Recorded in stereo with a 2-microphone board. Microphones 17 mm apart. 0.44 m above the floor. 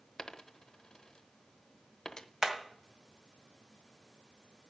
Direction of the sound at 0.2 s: 45° left (ahead or behind).